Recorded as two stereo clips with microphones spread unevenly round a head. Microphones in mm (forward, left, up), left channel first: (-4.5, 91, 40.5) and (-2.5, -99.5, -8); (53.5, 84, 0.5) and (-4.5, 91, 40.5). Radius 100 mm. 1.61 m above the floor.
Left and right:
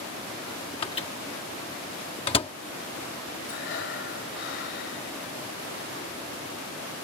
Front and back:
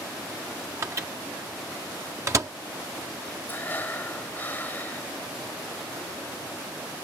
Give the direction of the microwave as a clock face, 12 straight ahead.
7 o'clock.